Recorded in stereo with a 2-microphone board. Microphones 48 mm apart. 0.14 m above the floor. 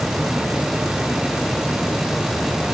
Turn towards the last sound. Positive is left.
No sound to turn to.